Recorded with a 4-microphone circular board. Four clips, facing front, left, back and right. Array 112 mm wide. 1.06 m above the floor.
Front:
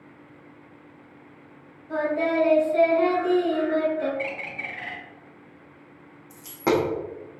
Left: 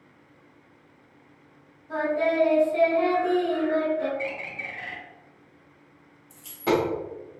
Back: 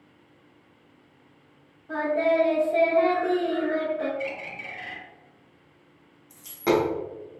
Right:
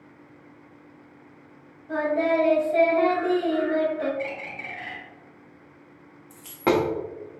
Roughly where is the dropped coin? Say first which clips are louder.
Right 2 dB, even; ahead right.